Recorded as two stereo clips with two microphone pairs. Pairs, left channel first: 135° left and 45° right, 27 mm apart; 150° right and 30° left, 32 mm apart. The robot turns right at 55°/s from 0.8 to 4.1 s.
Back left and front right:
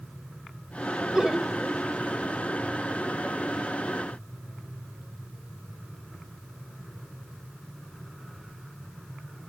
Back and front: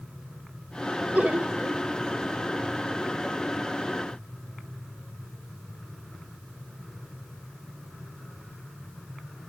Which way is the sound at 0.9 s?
Straight ahead.